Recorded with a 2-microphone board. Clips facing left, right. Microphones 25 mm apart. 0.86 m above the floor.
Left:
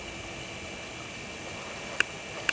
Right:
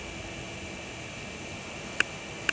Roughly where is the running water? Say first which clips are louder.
Even; left.